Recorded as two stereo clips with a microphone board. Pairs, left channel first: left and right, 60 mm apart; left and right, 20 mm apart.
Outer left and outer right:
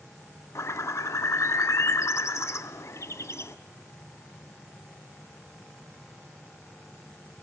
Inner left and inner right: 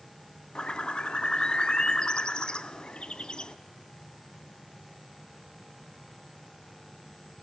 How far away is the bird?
About 0.5 m.